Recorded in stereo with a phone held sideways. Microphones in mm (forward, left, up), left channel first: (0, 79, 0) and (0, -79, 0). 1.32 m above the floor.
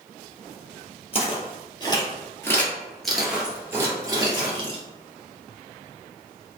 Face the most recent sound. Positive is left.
turn(degrees=-35)  # may be behind; listen again after turning